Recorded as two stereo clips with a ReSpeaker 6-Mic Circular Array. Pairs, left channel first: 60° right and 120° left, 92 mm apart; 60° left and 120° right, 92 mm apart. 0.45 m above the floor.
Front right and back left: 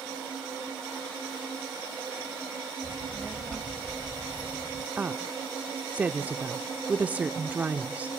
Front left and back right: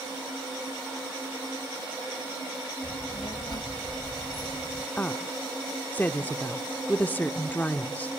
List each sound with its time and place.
2.8 s a child speaking: 40° left, 1.5 m; by 4.9 s 25° right, 1.2 m
5.0 s a woman speaking: 85° left, 0.7 m